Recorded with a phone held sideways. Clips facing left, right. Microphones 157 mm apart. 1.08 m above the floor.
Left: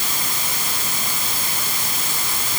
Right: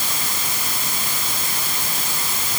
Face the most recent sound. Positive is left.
No sound to turn to.